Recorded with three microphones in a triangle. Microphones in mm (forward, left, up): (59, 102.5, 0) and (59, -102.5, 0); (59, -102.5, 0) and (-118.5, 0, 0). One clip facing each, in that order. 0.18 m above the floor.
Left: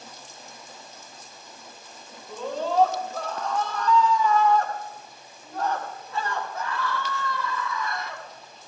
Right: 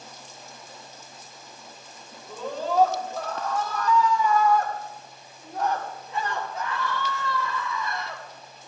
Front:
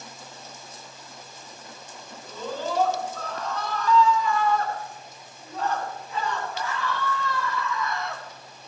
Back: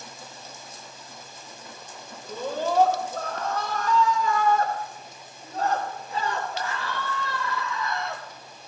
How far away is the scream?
About 5 m.